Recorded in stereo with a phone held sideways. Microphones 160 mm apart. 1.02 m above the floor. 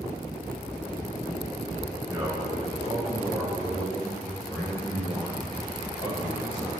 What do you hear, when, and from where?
2.1 s a man speaking: 30° right (ahead or behind), 3.5 m; by 6.7 s 40° left (ahead or behind), 5 m